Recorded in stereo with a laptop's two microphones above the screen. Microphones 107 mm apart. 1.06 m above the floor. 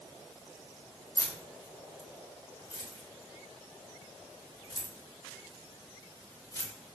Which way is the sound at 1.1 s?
35° left (ahead or behind).